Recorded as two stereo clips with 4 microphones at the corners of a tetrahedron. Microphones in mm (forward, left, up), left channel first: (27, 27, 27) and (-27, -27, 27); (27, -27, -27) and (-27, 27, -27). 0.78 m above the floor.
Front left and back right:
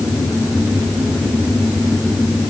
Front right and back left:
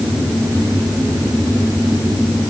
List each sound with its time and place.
Only background noise.